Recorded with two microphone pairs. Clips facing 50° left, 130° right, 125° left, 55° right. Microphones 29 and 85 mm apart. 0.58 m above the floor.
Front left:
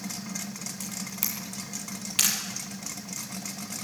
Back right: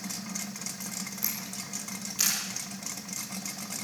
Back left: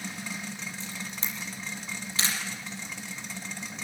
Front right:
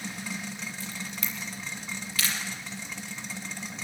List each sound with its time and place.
0.8 s a camera shutter: 65° left, 5.5 m